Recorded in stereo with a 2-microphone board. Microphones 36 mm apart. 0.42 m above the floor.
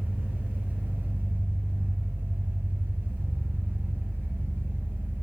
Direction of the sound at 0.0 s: 85° right.